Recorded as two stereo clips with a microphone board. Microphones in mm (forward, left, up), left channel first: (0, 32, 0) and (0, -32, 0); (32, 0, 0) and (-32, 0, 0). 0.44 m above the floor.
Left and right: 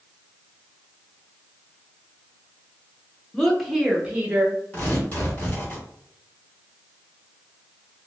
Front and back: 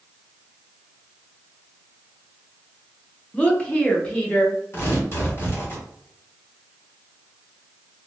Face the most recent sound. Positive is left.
turn(degrees=35)